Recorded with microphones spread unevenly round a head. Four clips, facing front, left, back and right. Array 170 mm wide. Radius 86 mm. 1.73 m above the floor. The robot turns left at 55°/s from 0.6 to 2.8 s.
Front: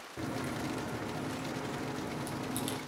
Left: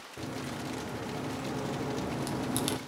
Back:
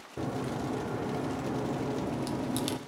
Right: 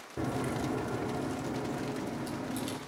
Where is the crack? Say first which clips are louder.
Right 5 dB, back 3 dB; 135° right, 0.5 m; by 2.8 s 105° left, 0.5 m.